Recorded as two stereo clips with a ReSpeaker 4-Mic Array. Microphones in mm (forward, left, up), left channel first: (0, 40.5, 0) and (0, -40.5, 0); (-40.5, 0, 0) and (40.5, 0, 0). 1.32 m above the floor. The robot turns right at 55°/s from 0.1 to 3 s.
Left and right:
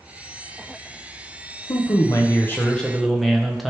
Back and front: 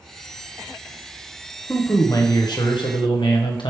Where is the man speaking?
110° left, 0.9 m; by 3.7 s straight behind, 0.9 m.